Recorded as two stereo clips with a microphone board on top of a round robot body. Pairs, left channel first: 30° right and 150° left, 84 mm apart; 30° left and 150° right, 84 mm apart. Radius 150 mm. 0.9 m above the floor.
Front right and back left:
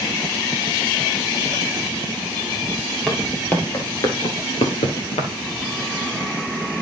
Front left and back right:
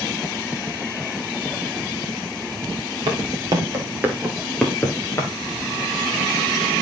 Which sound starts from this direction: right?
Footsteps, at 3.1 s.